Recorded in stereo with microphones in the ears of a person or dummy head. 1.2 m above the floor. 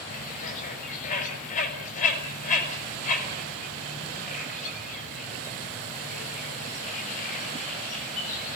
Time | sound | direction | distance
0.1 | a bird | 40° left (ahead or behind) | 6 m